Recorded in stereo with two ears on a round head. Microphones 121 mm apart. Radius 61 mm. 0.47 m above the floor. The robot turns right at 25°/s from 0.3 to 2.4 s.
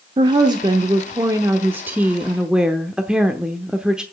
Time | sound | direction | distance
0.2 | a woman speaking | 60° right | 0.8 m